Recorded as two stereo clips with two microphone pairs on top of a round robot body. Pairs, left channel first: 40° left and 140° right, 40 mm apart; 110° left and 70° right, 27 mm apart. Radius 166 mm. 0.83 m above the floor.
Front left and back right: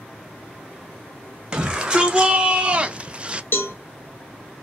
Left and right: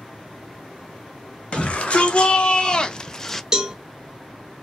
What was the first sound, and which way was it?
A shout, 155° left.